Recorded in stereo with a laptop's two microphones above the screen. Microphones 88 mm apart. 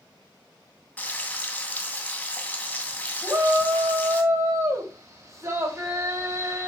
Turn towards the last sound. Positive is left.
turn(degrees=-35)  # may be behind; listen again after turning